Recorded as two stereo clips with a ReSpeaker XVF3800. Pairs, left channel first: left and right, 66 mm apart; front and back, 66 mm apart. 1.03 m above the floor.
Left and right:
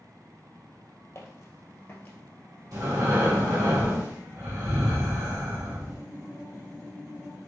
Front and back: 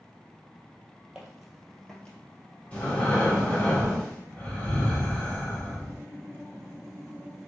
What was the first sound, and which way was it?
Footsteps, 105° left.